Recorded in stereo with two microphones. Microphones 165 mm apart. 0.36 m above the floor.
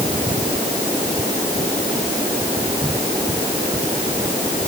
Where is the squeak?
I don't hear a squeak.